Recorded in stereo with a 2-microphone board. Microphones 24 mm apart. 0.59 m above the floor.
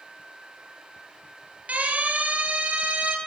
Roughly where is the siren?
Right.